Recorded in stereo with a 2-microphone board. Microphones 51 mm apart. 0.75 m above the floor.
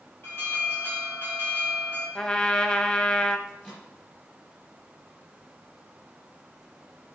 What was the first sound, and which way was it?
An alarm, 45° left (ahead or behind).